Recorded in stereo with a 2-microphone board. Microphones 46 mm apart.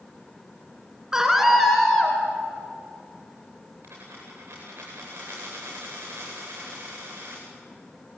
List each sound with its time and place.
1.1 s a scream: 15° right (ahead or behind), 2 m; by 2.2 s 10° left (ahead or behind), 2.5 m
3.8 s a dropped coin: 65° right (ahead or behind), 9 m